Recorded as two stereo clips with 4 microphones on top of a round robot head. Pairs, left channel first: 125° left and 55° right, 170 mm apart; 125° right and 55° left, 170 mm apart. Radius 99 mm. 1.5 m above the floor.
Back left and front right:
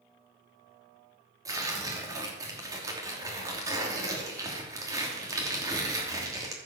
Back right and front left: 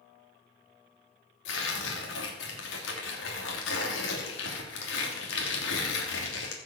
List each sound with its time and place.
1.4 s tearing paper: 125° right, 3 m